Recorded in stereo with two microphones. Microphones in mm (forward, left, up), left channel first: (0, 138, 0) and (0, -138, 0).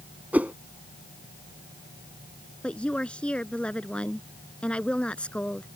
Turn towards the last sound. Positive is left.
turn(degrees=5)  # may be behind; listen again after turning